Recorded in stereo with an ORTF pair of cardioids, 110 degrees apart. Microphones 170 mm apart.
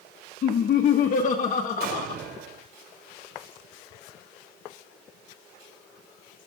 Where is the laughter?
50° left, 1.6 m.